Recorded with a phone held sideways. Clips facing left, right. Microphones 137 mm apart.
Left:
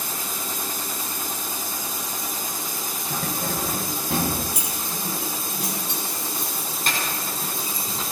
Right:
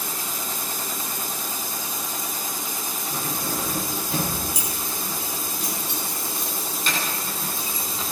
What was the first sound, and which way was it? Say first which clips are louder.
Keys jangling: left 1 dB; 75° left (ahead or behind).